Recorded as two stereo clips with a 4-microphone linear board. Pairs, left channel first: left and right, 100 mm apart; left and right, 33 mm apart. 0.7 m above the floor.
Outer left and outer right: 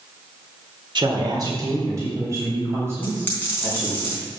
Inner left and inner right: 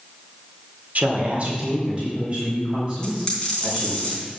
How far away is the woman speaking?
About 1.5 m.